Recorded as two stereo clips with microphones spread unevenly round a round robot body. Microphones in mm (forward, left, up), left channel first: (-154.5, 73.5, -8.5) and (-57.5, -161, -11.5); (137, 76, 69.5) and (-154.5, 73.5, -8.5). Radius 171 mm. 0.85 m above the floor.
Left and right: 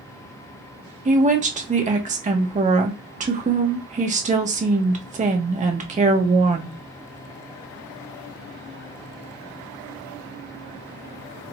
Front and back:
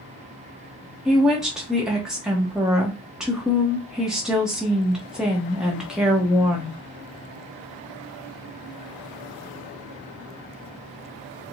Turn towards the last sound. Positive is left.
turn(degrees=-110)